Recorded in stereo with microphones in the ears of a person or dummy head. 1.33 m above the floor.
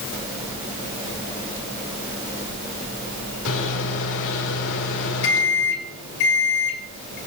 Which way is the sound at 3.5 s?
70° left (ahead or behind).